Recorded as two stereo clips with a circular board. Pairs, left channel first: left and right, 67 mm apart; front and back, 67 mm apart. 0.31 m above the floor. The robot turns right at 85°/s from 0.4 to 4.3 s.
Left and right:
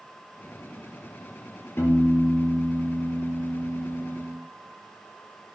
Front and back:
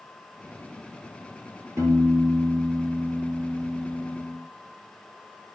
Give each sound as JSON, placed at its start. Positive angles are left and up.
{"t": 1.8, "sound": "a piano", "azimuth_deg": 140, "distance_m": 4.5}